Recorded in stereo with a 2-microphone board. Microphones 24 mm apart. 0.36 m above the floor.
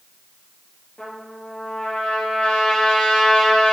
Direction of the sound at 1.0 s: 55° left (ahead or behind).